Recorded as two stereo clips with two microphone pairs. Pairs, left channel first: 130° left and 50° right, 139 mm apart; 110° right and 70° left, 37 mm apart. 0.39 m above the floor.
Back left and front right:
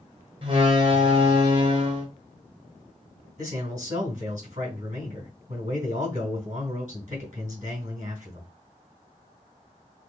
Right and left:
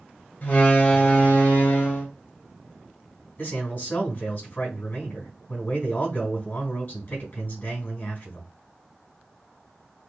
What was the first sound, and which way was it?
A door slam, 95° right.